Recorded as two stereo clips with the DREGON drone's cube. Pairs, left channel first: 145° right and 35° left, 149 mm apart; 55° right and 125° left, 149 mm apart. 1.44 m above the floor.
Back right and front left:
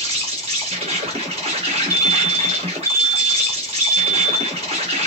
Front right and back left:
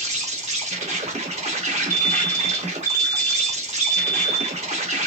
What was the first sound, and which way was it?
An insect, 80° left.